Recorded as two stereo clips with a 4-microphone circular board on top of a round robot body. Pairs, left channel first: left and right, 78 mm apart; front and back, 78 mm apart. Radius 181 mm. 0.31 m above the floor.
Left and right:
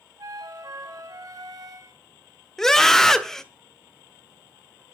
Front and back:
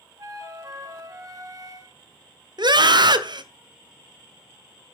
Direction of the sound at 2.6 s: 175° left.